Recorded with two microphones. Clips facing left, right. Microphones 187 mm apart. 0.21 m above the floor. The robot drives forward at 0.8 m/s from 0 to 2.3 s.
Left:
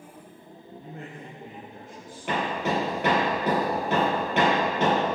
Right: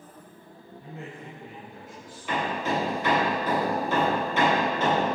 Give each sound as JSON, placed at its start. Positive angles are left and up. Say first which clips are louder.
{"t": 0.8, "sound": "a man speaking", "louder": "right 1 dB", "side_deg": 60, "distance_m": 4.0}
{"t": 2.3, "sound": "hammering", "louder": "left 1 dB", "side_deg": 75, "distance_m": 4.5}